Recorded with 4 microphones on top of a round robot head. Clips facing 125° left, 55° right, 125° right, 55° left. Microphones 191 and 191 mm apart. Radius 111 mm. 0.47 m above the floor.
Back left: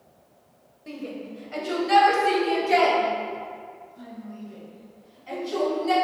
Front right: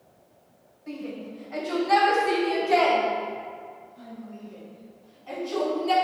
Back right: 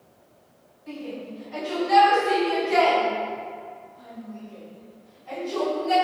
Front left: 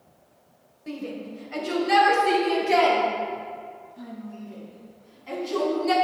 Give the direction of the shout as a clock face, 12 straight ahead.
9 o'clock.